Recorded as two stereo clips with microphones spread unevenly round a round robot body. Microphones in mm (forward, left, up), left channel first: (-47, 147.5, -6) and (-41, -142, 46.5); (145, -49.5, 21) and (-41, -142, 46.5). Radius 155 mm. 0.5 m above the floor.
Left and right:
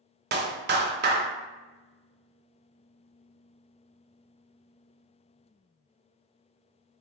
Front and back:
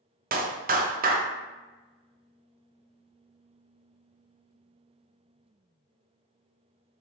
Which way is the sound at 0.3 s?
135° right.